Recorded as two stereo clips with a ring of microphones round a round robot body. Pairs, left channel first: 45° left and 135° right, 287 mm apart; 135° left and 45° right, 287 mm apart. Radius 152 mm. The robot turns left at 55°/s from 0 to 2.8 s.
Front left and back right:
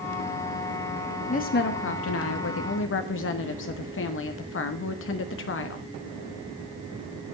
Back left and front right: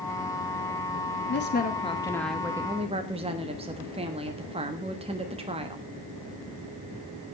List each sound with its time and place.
1.3 s a woman speaking: 100° left, 1.4 m; by 5.9 s 20° left, 1.4 m